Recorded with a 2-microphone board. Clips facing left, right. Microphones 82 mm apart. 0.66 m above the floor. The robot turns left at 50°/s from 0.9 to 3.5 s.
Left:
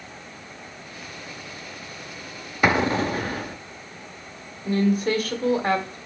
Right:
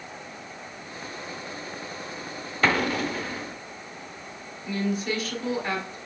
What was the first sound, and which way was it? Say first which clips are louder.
An explosion: left 3 dB; 165° left.